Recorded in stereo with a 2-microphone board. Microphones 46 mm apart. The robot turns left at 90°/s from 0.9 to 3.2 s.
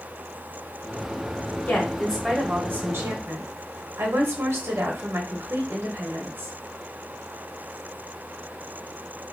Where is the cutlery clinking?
No cutlery clinking in this recording.